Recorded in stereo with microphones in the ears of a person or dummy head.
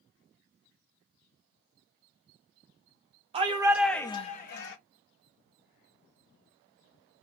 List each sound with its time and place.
3.3 s a shout: 30° right (ahead or behind), 0.9 m; by 4.8 s 65° left (ahead or behind), 0.9 m